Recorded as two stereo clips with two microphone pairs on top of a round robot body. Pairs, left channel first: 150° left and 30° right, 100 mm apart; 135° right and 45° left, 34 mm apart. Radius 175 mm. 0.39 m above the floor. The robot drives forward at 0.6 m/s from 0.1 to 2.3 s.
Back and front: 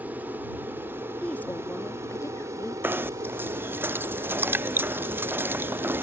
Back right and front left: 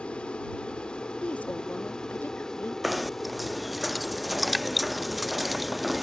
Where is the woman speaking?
130° right; by 2.7 s 155° right.